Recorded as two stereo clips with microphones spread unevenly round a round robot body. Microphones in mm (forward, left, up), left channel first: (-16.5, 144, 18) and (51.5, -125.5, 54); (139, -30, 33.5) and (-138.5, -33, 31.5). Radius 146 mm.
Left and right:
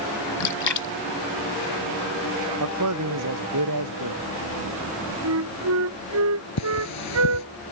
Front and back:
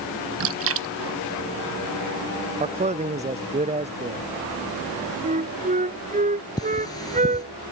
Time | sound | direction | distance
0.4 | a splash | 135° left | ?
2.6 | a man speaking | 110° right | ?
5.2 | a flute | 115° right | ?
6.6 | cutlery clinking | 80° left | ?